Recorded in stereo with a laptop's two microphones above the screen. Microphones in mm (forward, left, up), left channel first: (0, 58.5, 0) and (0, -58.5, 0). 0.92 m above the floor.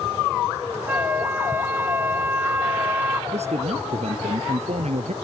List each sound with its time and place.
0.9 s a flute: 15° right (ahead or behind)
3.3 s a man speaking: 70° right (ahead or behind)